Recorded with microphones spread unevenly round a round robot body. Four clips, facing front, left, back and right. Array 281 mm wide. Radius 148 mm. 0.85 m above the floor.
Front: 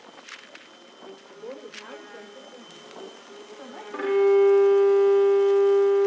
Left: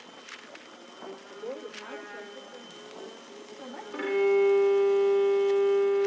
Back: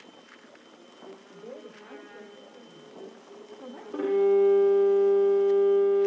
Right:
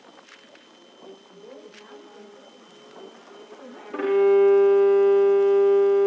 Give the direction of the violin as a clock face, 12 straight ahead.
4 o'clock.